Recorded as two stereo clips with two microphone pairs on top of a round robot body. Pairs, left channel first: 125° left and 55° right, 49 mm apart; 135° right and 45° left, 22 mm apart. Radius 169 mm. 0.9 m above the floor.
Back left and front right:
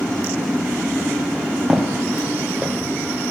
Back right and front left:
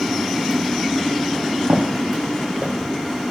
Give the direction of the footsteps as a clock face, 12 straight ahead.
11 o'clock.